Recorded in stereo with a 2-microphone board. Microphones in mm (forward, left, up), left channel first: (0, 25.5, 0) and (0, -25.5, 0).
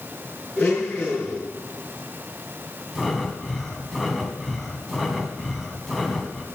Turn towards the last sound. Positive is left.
turn(degrees=0)  # may be behind; listen again after turning